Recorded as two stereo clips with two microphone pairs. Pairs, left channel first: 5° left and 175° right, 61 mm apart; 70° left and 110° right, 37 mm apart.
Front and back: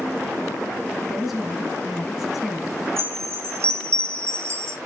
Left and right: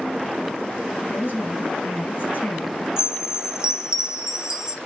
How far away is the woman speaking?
About 3.5 m.